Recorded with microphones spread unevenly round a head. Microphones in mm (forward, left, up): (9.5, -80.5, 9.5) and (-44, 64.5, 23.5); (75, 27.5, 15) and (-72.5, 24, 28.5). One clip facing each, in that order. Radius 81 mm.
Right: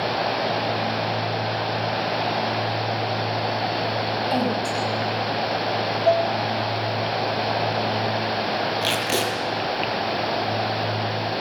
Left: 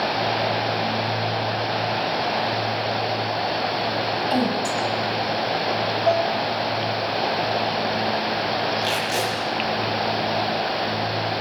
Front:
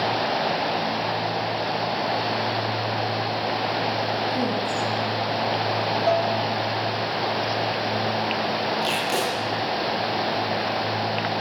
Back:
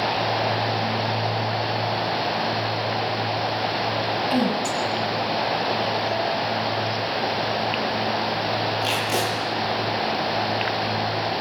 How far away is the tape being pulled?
About 7.5 m.